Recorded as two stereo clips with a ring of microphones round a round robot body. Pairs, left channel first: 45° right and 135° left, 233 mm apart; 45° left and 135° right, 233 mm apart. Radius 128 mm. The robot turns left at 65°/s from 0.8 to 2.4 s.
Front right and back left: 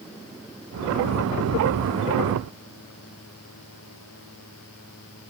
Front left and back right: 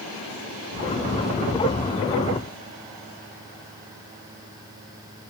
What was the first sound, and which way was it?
Only background noise.